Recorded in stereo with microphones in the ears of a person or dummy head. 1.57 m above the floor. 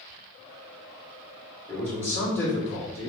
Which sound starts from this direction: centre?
A man speaking, at 1.7 s.